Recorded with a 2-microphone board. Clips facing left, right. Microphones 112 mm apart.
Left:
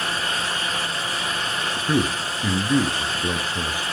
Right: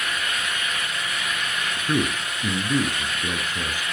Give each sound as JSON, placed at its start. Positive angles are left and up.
{"t": 1.9, "sound": "a man speaking", "side_deg": 10, "distance_m": 1.7}